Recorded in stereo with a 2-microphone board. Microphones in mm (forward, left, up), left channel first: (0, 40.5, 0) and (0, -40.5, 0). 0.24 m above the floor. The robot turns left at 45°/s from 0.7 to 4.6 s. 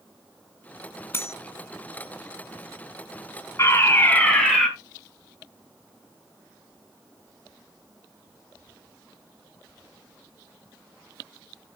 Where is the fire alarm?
45° left, 3.5 m; by 4.7 s straight ahead, 3.5 m.